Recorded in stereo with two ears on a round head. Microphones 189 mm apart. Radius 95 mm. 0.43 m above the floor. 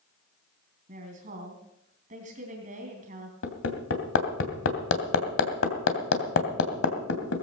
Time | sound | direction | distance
0.9 | a woman speaking | 40° right (ahead or behind) | 3 m
3.4 | hammering | 65° left (ahead or behind) | 2.5 m